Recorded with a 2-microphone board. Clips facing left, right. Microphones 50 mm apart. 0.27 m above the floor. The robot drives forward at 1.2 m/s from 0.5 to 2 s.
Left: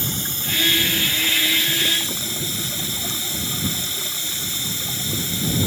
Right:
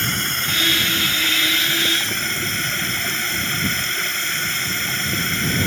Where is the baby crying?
I don't hear a baby crying.